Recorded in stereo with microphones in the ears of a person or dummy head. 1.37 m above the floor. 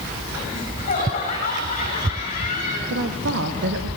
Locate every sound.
0.5 s laughter: 45° left (ahead or behind), 9 m
2.9 s a woman speaking: 80° right, 1.7 m